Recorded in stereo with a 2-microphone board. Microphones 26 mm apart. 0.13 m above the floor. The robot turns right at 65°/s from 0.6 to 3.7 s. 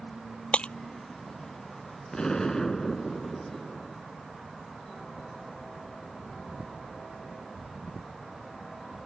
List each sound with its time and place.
0.5 s breaking glass: 50° left (ahead or behind); by 0.7 s 40° left (ahead or behind)
2.1 s an explosion: 110° left; by 4.0 s 150° right